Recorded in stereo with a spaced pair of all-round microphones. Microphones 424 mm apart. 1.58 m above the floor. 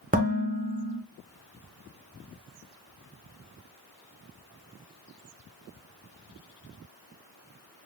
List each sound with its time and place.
0.1 s dishes clattering: 20° right (ahead or behind), 0.7 m